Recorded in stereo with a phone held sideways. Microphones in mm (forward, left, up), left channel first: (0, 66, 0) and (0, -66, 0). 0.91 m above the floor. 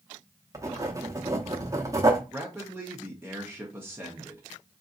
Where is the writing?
25° right (ahead or behind), 0.8 m.